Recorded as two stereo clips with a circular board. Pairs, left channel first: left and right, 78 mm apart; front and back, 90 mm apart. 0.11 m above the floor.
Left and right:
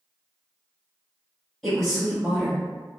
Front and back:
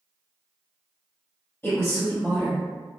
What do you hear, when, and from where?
1.6 s a woman speaking: 5° left, 1.7 m